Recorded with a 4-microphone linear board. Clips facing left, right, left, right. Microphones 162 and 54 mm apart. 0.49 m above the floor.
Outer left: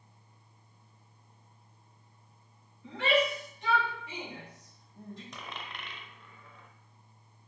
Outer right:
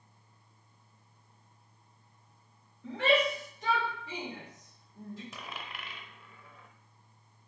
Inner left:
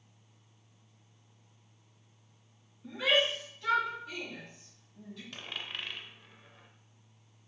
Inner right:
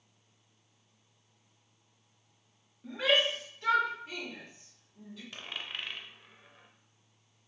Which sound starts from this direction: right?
A shout, at 2.8 s.